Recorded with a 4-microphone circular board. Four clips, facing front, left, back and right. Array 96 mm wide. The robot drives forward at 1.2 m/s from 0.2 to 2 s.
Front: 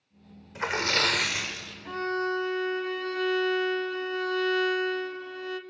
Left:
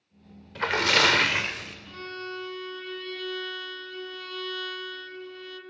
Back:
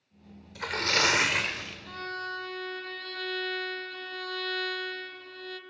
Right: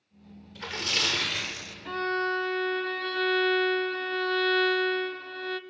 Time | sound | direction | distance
0.6 | a splash | 60° left | 1.0 m
1.9 | a violin | 65° right | 1.0 m